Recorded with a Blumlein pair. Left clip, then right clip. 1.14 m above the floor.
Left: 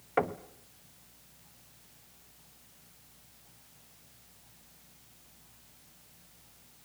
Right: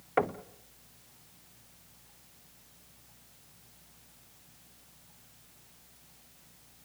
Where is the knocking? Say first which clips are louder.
Right 1 dB; 5° right, 0.8 m.